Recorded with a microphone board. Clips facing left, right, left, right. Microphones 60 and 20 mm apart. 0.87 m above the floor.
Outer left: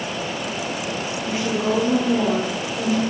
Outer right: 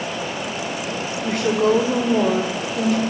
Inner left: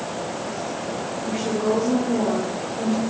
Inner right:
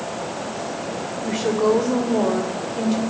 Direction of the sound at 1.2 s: 60° right (ahead or behind).